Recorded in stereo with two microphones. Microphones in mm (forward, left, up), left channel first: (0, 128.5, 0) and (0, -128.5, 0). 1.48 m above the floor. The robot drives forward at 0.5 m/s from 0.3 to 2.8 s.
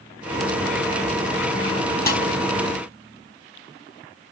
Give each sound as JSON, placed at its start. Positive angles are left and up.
{"t": 2.1, "sound": "a snare drum", "side_deg": 35, "distance_m": 4.5}